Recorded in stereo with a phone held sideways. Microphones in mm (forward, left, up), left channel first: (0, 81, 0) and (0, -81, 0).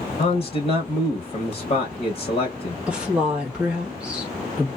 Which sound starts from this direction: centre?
A woman speaking, at 2.9 s.